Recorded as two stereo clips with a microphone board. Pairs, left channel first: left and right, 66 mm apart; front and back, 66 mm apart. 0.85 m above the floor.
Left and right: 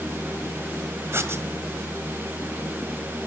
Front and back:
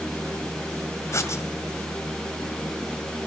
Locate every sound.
1.1 s writing: 40° right, 1.6 m